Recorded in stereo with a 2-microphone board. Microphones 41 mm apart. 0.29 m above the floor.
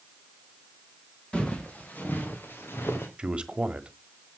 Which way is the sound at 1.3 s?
25° left (ahead or behind).